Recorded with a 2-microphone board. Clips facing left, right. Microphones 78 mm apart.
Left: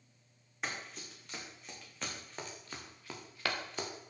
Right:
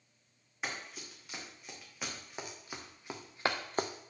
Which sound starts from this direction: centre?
Running footsteps, at 0.6 s.